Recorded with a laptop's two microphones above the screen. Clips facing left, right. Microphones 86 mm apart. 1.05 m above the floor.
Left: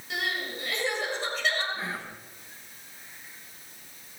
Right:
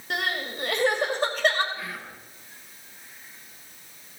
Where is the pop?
I don't hear a pop.